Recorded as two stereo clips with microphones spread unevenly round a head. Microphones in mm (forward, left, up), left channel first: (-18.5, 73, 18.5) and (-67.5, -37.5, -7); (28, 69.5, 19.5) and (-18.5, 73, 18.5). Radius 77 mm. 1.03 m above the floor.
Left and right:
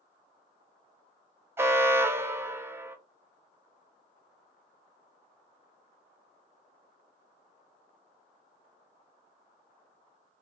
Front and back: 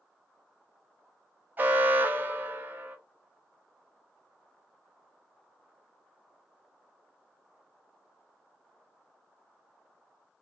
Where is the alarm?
160° right, 0.8 m.